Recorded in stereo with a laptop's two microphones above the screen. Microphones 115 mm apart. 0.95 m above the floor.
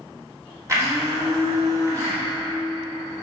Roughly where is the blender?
Right.